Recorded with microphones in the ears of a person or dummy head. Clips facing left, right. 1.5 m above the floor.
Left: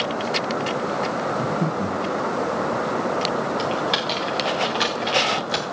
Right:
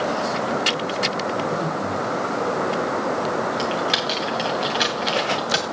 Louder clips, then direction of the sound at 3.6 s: Even; centre (ahead or behind).